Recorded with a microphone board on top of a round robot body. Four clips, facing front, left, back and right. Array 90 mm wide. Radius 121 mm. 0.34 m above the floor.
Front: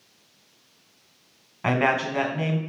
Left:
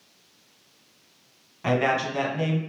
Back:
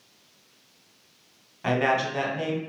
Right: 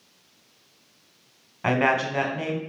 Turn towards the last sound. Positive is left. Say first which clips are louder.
# right 1 dB, front 1 dB
turn(degrees=-45)